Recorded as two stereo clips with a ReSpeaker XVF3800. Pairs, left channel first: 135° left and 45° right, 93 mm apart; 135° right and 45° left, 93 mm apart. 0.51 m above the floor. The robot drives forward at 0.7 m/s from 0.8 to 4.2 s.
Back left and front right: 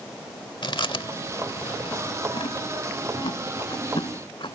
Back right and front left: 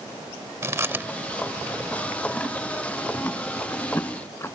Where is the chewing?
105° left; by 4.6 s 160° left.